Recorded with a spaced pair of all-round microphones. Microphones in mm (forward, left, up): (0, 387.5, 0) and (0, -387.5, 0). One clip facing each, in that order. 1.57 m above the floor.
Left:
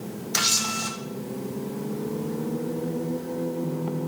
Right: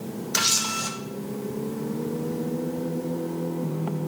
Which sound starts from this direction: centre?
A camera shutter, at 0.3 s.